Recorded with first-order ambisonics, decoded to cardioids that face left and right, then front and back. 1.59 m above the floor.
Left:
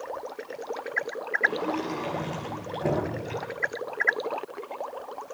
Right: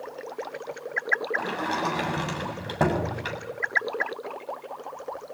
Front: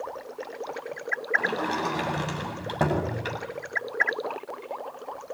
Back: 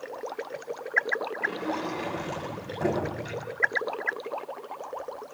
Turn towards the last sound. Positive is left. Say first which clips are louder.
# left 2 dB, front 3 dB
turn(degrees=-55)